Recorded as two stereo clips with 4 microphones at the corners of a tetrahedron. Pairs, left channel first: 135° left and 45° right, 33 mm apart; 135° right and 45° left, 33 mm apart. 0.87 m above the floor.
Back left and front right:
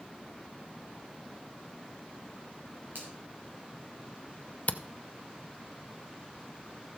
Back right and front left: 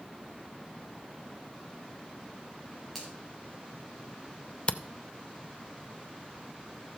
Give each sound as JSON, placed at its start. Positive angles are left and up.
{"t": 3.0, "sound": "a finger snap", "azimuth_deg": -45, "distance_m": 3.5}
{"t": 4.7, "sound": "a camera shutter", "azimuth_deg": 170, "distance_m": 0.5}